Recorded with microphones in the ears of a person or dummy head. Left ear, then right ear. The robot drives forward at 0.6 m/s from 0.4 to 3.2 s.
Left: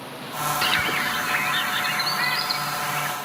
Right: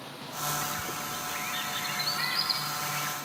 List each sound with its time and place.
0.6 s a bird: 85° left, 0.8 m; by 3.1 s 25° left (ahead or behind), 1.7 m